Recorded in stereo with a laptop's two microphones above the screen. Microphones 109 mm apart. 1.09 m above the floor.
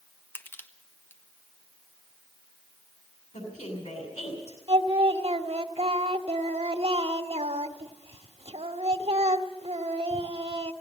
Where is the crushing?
20° left (ahead or behind), 1.4 m.